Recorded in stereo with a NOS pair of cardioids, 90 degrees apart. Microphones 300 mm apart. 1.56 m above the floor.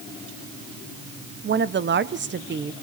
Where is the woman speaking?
35° right, 1.2 m.